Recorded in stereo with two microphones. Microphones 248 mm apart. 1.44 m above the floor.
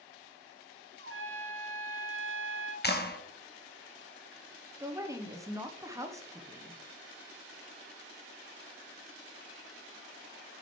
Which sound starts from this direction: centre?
A woman speaking, at 4.8 s.